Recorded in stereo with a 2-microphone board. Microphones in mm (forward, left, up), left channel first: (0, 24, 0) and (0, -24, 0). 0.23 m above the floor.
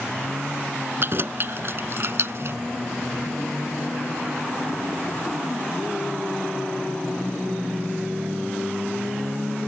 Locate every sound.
1.0 s keys jangling: 50° right (ahead or behind); by 2.6 s 55° right (ahead or behind)